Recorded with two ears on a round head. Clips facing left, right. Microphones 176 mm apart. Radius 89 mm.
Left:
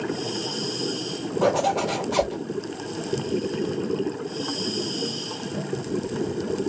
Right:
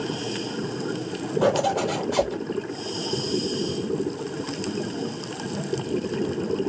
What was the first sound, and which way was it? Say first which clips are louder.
A zipper: even; 10° right (ahead or behind).